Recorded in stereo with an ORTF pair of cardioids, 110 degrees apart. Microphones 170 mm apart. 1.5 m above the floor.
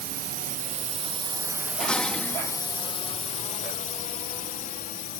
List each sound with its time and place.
0.0 s a drone: 65° right; by 5.2 s 60° left
1.8 s dishes clattering: 5° left